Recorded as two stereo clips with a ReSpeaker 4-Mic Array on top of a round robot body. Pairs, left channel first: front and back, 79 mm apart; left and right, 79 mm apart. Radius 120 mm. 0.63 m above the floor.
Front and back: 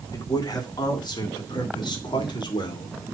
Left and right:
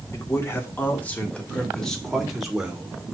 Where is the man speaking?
35° left, 1.9 m; by 3.0 s 10° right, 2 m.